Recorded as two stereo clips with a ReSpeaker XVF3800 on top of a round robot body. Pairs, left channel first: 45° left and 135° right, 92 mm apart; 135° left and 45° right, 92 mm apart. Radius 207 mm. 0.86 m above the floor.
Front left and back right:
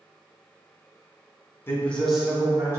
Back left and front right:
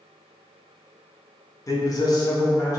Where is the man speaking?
100° left, 1.0 m; by 2.8 s straight behind, 1.1 m.